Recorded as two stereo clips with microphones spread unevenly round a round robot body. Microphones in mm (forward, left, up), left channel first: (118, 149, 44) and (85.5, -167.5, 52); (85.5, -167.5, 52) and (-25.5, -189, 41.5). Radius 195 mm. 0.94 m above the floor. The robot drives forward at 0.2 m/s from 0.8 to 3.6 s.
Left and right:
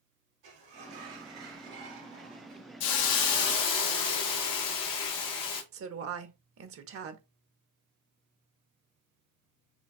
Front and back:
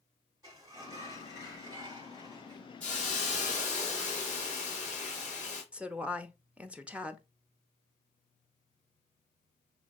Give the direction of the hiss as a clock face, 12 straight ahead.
9 o'clock.